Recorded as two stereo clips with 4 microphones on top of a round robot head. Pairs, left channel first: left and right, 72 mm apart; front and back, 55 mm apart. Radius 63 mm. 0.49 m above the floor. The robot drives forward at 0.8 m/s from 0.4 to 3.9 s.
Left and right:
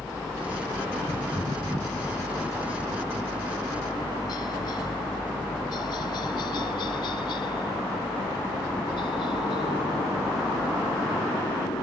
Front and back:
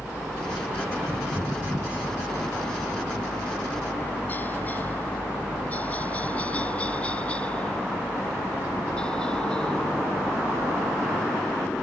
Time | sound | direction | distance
0.0 | a helicopter | 35° left | ?